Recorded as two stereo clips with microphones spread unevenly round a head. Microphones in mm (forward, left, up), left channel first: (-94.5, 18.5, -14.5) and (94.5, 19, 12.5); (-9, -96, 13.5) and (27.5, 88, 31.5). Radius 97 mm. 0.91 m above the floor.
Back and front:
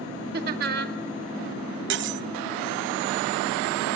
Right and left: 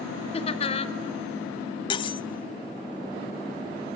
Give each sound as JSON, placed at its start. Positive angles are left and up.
{"t": 0.3, "sound": "laughter", "azimuth_deg": -45, "distance_m": 2.0}
{"t": 1.9, "sound": "cutlery clinking", "azimuth_deg": -35, "distance_m": 1.1}